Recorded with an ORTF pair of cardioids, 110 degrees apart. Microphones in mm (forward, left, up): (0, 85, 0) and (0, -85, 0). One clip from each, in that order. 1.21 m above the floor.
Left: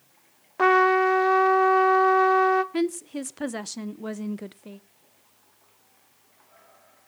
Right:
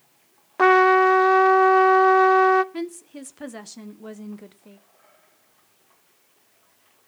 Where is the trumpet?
20° right, 0.7 m.